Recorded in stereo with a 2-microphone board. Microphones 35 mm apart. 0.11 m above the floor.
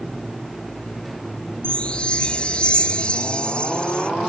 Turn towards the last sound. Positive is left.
turn(degrees=30)  # may be behind; listen again after turning